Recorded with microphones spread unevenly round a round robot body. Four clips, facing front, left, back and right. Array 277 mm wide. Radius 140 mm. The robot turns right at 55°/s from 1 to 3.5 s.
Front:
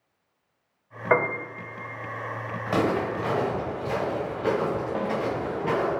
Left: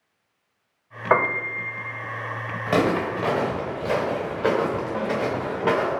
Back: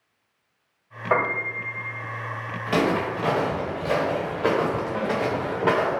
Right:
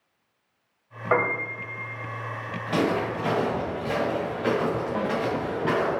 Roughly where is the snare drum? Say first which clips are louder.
Left 1 dB, back 2 dB; ahead.